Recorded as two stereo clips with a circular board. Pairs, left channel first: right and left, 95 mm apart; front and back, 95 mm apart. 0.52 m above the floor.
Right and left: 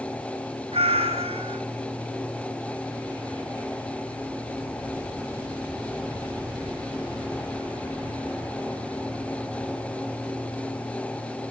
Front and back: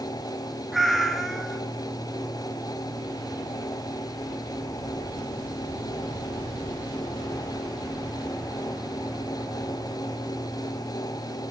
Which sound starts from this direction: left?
A cat meowing, at 0.7 s.